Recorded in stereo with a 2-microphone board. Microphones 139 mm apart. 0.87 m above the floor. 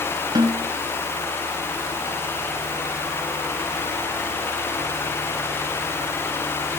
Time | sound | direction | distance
0.3 | a snare drum | 30° right (ahead or behind) | 3 m